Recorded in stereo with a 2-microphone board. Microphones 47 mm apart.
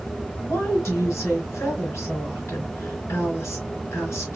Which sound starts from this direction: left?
A woman speaking, at 0.4 s.